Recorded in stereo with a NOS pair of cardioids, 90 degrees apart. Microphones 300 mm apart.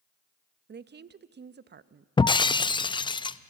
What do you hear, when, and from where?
0.7 s a woman speaking: 35° right, 0.8 m
2.2 s breaking glass: 15° left, 0.5 m